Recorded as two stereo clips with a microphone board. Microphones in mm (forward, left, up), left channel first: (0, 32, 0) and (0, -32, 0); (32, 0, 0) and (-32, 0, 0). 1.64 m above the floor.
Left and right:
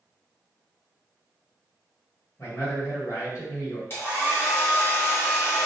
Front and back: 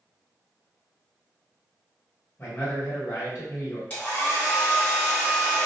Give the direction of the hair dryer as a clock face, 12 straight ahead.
10 o'clock.